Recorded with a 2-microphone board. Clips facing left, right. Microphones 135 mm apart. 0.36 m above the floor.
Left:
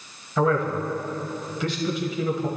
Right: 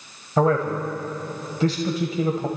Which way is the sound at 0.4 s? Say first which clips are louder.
Right 2 dB; 40° right (ahead or behind).